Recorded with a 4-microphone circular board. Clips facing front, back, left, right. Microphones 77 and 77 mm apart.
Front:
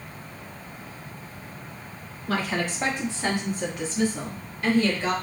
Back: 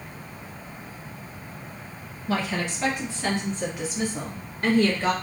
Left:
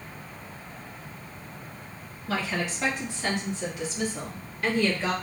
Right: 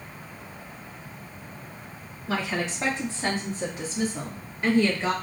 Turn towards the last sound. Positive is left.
turn(degrees=-160)